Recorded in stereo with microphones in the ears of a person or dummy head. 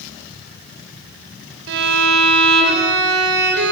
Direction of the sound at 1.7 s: 70° right (ahead or behind).